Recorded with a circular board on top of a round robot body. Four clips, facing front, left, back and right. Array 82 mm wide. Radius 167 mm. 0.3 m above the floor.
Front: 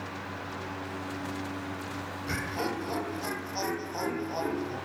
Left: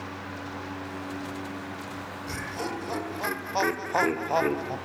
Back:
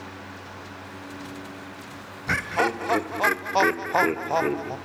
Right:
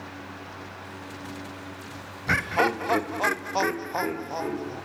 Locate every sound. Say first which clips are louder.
2.3 s laughter: right 11 dB, back 9 dB; 125° right, 2.5 m; by 4.8 s 135° left, 2.5 m